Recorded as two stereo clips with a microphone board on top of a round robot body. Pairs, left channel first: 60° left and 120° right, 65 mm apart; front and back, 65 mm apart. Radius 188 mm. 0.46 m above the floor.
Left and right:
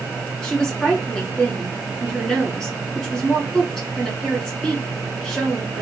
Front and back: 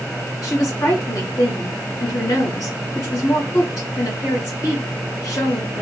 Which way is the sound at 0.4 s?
30° right.